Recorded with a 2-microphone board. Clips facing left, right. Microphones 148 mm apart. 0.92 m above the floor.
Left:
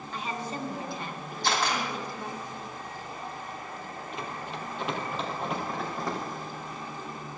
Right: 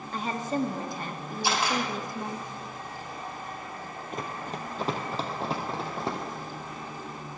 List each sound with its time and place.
0.1 s a woman speaking: 45° right (ahead or behind), 1.4 m
1.4 s a camera shutter: 10° right (ahead or behind), 4 m
4.1 s running footsteps: 45° right (ahead or behind), 1.7 m; by 6.2 s 30° right (ahead or behind), 2.5 m